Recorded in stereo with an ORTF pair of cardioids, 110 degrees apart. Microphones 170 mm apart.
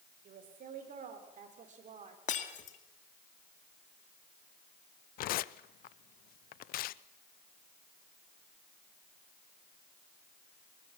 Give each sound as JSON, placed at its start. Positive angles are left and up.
{"t": 0.2, "sound": "a woman speaking", "azimuth_deg": -60, "distance_m": 5.5}
{"t": 2.3, "sound": "breaking glass", "azimuth_deg": 50, "distance_m": 2.5}
{"t": 5.2, "sound": "tearing paper", "azimuth_deg": 65, "distance_m": 0.6}